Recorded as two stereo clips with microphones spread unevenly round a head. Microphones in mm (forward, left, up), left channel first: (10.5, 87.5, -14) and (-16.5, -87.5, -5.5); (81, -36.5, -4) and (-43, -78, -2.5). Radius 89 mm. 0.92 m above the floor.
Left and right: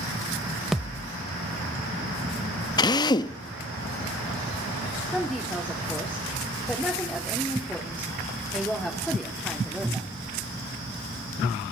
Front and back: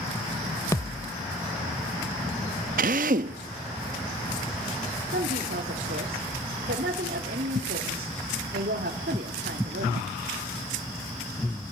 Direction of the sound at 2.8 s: 150° left.